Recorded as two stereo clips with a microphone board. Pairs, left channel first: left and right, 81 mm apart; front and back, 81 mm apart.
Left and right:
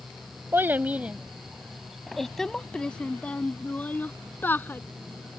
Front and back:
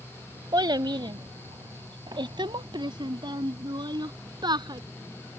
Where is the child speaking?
150° right; by 4.8 s 155° left.